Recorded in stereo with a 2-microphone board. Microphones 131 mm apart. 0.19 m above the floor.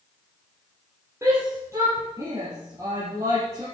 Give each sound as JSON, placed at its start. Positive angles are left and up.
{"t": 1.2, "sound": "a shout", "side_deg": -20, "distance_m": 4.5}